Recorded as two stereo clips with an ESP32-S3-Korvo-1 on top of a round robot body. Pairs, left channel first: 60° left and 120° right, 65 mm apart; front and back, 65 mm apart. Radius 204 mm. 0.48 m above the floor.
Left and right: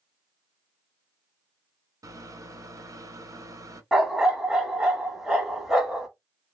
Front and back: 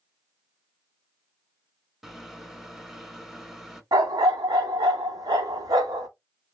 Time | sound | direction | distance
2.0 | a microwave | 95° right | 1.2 m
3.9 | a dog barking | 155° left | 1.1 m